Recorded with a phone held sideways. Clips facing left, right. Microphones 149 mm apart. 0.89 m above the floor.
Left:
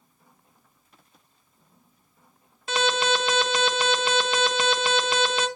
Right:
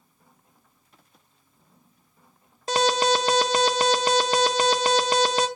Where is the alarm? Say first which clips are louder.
Right 3 dB; 40° right (ahead or behind), 1.0 m.